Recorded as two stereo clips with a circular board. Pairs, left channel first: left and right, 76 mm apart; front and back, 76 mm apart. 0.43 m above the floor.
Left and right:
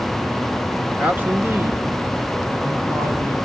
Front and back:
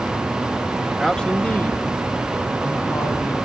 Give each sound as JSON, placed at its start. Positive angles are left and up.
{"t": 0.9, "sound": "a man speaking", "azimuth_deg": -100, "distance_m": 1.4}